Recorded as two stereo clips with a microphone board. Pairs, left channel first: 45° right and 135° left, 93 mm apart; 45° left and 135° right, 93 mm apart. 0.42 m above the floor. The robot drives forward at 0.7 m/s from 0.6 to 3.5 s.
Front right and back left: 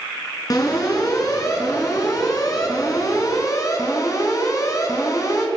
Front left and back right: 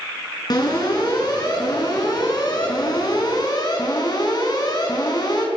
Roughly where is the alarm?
Ahead.